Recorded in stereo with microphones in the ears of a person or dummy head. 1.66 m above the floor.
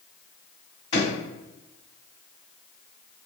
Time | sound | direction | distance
0.9 | a drawer | 25° left (ahead or behind) | 1.5 m